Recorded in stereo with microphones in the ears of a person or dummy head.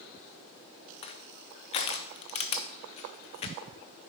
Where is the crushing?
35° left (ahead or behind), 0.8 m.